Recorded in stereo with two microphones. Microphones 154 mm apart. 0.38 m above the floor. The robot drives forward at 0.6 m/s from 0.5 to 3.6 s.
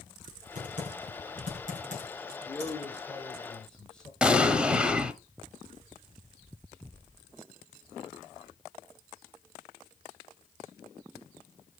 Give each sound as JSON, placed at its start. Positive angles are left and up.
{"t": 0.6, "sound": "typing on a keyboard", "side_deg": -60, "distance_m": 3.5}
{"t": 2.5, "sound": "a man speaking", "side_deg": 10, "distance_m": 1.1}
{"t": 4.2, "sound": "an explosion", "side_deg": -5, "distance_m": 0.7}